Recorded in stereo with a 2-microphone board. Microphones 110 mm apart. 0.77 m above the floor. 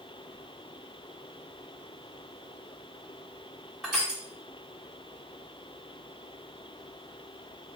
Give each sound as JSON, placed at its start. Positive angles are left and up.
{"t": 3.8, "sound": "crushing", "side_deg": -5, "distance_m": 1.3}